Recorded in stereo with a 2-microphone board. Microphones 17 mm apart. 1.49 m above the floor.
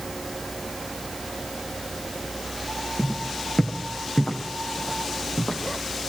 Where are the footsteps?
60° left (ahead or behind), 6 m; by 5.6 s 50° left (ahead or behind), 7 m.